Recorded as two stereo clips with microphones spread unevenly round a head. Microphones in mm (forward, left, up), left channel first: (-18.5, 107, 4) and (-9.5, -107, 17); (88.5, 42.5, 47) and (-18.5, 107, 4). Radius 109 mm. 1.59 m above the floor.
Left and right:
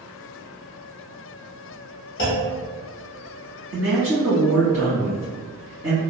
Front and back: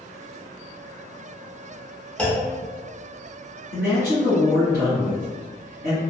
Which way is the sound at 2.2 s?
45° left.